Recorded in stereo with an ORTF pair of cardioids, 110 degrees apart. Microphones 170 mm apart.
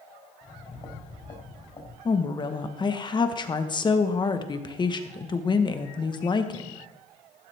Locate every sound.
0.4 s footsteps: 30° left, 5 m
2.0 s a woman speaking: 25° left, 1.3 m